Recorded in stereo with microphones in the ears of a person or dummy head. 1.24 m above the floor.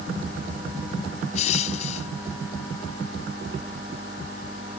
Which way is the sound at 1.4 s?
45° left (ahead or behind).